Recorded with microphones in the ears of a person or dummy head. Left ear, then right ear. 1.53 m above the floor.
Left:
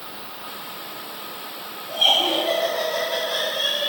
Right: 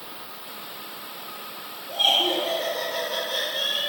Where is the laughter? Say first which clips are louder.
Left 2 dB; 10° right (ahead or behind), 1.3 m.